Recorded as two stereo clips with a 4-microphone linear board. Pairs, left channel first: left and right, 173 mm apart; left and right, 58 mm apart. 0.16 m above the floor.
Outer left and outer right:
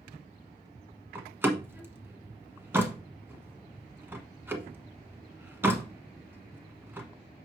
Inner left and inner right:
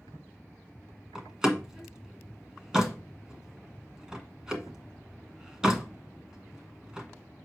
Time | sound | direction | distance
1.1 | a door slam | 15° right (ahead or behind) | 1.3 m